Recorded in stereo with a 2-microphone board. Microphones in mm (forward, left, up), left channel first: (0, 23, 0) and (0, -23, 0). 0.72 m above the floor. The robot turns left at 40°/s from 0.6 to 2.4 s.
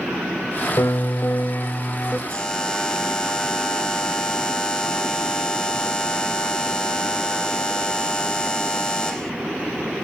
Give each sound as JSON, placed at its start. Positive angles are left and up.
{"t": 0.8, "sound": "a piano", "azimuth_deg": 95, "distance_m": 0.7}
{"t": 2.3, "sound": "a buzzer", "side_deg": 20, "distance_m": 1.3}